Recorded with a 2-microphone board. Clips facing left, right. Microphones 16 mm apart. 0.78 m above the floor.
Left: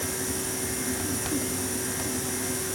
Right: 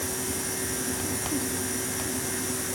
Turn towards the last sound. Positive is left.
No sound to turn to.